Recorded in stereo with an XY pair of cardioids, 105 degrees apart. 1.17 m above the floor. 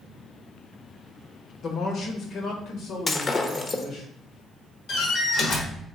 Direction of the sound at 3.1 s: 30° left.